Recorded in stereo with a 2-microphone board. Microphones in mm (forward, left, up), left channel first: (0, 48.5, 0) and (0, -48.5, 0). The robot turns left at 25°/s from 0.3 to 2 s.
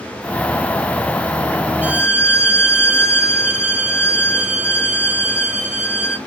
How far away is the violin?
About 1.6 m.